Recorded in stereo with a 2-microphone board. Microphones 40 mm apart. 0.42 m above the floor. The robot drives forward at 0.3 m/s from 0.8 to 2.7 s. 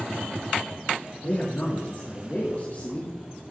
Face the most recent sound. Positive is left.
turn(degrees=40)  # may be behind; listen again after turning